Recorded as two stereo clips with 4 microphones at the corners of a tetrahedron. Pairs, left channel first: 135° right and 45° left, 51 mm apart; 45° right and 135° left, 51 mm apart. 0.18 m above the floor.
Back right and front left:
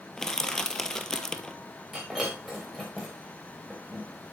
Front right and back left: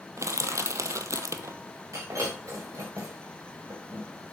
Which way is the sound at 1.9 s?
140° left.